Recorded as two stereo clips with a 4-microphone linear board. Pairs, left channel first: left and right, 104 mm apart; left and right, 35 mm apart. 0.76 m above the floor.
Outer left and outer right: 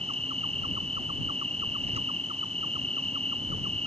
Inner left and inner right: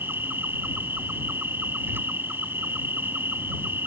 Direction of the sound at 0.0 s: 85° right.